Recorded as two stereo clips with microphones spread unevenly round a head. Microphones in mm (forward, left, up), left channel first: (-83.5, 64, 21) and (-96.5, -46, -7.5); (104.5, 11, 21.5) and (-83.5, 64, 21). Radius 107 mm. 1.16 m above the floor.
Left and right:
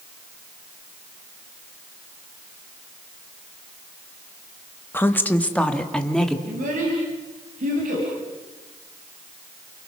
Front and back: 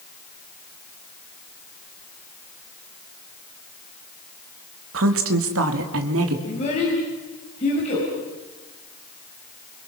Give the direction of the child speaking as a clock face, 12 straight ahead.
3 o'clock.